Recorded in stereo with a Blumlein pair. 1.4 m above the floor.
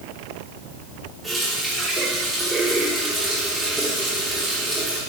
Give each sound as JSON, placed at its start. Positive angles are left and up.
{"t": 1.2, "sound": "a running tap", "azimuth_deg": 0, "distance_m": 3.0}